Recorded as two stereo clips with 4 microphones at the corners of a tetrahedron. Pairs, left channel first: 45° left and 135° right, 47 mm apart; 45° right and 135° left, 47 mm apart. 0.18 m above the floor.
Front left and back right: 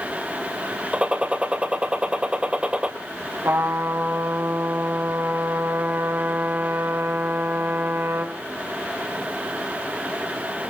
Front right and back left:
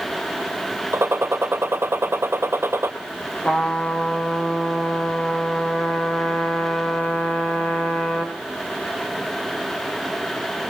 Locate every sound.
0.9 s a gunshot: 160° left, 2.5 m
3.4 s a trumpet: 110° right, 3.5 m